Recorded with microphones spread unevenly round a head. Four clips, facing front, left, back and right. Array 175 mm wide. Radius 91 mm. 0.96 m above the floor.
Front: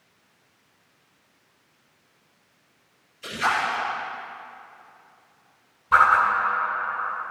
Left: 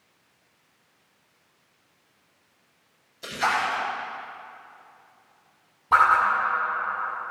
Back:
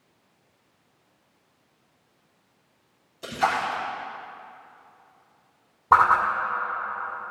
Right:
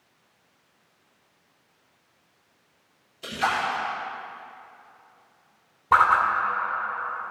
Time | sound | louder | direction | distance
3.2 | a splash | left 1 dB, even | 170° left | 4 m
5.9 | a whoosh | even, even | 170° right | 2.5 m